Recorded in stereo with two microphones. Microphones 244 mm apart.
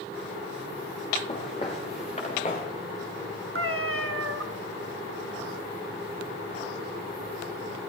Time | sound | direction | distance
1.3 | footsteps | 25° left (ahead or behind) | 5.5 m
3.5 | a cat meowing | 55° right (ahead or behind) | 0.9 m